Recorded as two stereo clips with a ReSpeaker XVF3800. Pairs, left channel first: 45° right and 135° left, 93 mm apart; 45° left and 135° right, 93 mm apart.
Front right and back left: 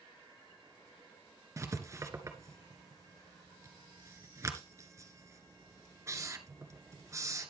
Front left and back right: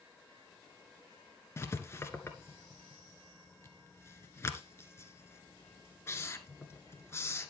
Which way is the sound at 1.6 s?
95° left.